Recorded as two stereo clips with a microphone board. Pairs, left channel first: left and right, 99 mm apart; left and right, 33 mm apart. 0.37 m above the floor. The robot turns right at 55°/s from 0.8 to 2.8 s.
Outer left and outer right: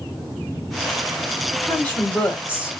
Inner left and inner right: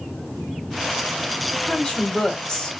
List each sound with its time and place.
1.6 s a woman speaking: 10° left (ahead or behind), 1.0 m; by 2.8 s 20° left (ahead or behind), 1.0 m